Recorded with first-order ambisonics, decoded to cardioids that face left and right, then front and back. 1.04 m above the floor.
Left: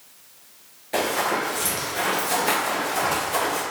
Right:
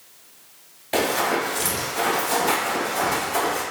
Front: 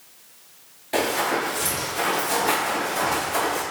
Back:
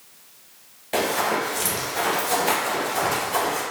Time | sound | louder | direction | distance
0.9 | running footsteps | right 1 dB, even | 100° right | 1.1 m